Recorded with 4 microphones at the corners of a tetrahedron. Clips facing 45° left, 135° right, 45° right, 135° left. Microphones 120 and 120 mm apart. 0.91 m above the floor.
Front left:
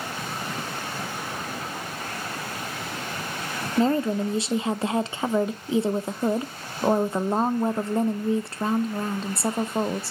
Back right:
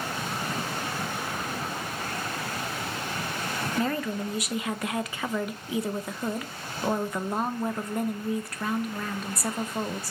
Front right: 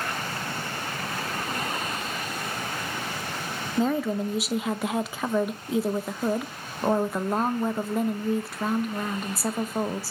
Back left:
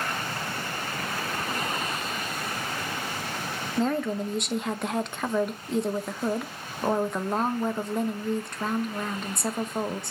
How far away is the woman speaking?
About 0.6 m.